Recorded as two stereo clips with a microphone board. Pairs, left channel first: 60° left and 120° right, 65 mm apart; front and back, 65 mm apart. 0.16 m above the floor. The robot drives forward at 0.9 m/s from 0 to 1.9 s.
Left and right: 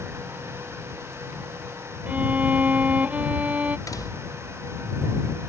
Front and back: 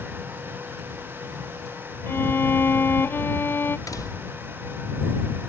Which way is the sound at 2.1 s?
55° right.